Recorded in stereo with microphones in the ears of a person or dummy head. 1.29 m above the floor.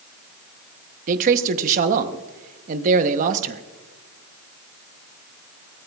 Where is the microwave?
No microwave in this recording.